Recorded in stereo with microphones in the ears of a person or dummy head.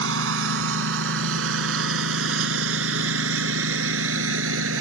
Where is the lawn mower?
80° right; by 4.8 s 85° right.